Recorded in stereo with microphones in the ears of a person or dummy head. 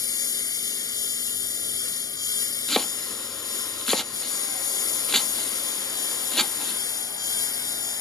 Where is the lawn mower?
20° left (ahead or behind).